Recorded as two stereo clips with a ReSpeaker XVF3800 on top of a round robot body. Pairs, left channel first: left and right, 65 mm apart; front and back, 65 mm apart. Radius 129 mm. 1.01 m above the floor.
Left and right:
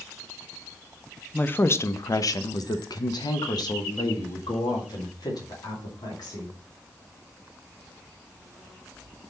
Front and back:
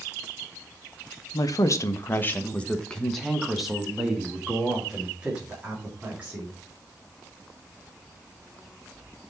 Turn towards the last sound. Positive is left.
turn(degrees=110)